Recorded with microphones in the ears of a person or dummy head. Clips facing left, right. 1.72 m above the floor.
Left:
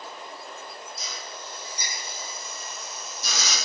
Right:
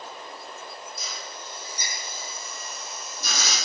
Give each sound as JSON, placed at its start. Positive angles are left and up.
{"t": 1.0, "sound": "a drill", "side_deg": -50, "distance_m": 4.5}